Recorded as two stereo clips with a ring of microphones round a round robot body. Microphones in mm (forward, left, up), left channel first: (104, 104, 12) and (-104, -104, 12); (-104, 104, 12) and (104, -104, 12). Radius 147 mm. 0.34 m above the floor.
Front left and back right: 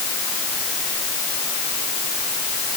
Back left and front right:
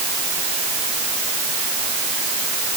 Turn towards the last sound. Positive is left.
No sound to turn to.